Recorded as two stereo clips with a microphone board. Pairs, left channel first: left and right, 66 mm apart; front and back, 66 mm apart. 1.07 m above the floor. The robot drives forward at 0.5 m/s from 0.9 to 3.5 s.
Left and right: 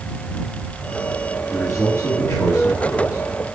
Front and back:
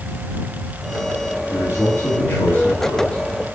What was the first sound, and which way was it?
A man speaking, 45° left.